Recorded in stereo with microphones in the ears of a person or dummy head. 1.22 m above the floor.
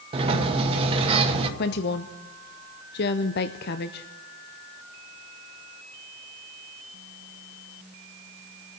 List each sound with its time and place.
0.1 s a sliding door: 35° right (ahead or behind), 1.3 m
1.6 s a woman speaking: 50° left (ahead or behind), 0.6 m